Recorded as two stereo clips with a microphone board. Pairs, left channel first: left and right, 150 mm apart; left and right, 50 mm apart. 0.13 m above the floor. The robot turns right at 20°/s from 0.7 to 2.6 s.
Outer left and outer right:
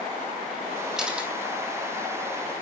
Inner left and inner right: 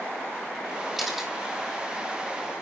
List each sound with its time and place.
1.0 s a camera shutter: 5° right (ahead or behind), 1.8 m; by 1.3 s 10° right (ahead or behind), 1.8 m